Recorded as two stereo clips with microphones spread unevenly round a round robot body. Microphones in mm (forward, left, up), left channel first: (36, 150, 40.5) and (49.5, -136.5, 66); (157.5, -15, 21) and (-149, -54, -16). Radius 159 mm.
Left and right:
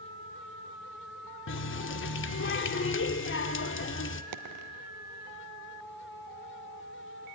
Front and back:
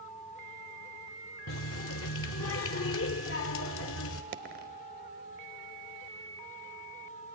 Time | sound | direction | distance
1.5 | a running tap | 55° left | 0.9 m
4.3 | a dropped coin | 115° right | 1.0 m